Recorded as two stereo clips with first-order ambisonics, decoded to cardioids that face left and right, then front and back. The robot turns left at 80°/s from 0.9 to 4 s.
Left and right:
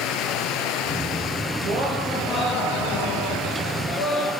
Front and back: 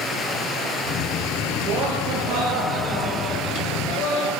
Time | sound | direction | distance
0.0 | running water | 60° left | 3.5 m
1.6 | laughter | 135° right | 8.5 m